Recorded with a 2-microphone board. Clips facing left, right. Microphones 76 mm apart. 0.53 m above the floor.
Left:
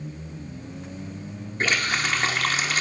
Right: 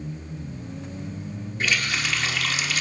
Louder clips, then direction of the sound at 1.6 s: Left 2 dB; 40° left (ahead or behind).